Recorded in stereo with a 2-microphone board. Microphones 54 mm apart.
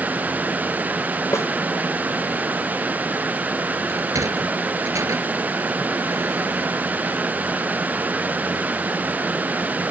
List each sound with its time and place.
1.3 s a snare drum: 65° left (ahead or behind)
3.9 s a sliding door: 90° right